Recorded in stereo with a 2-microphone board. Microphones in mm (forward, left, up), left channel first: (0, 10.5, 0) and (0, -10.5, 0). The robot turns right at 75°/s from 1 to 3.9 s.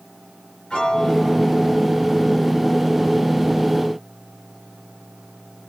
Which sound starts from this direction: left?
A piano, at 0.7 s.